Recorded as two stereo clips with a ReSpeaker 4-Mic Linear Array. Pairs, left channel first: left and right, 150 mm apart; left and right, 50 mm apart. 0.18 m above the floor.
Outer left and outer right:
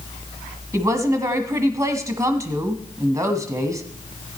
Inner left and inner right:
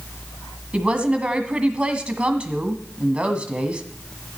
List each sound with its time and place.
0.7 s a woman speaking: 20° right (ahead or behind), 1.2 m